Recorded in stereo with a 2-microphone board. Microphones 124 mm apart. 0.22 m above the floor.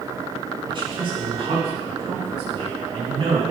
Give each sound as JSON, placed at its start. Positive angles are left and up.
{"t": 0.7, "sound": "a man speaking", "side_deg": -40, "distance_m": 2.5}